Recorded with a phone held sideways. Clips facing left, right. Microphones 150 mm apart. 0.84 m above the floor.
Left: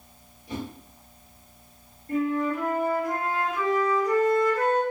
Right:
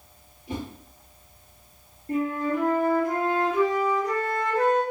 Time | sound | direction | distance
0.5 | a whoosh | 25° right (ahead or behind) | 2.0 m
2.1 | a flute | 30° right (ahead or behind) | 1.3 m